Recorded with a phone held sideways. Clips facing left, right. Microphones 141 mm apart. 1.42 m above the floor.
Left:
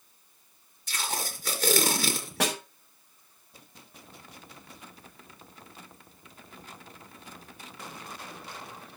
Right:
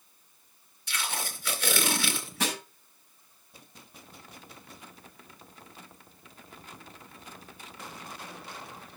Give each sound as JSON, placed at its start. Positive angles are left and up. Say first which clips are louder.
{"t": 0.9, "sound": "tape being pulled", "louder": "left 1 dB", "side_deg": 45, "distance_m": 3.0}
{"t": 2.4, "sound": "a snare drum", "louder": "left 3 dB", "side_deg": 80, "distance_m": 6.5}